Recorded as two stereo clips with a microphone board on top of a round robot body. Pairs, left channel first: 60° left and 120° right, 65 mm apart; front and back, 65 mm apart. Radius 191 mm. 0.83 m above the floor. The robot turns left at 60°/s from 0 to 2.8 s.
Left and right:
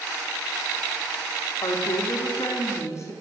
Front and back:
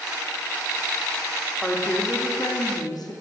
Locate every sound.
1.6 s a woman speaking: 85° left, 3 m; by 3.1 s 15° left, 3 m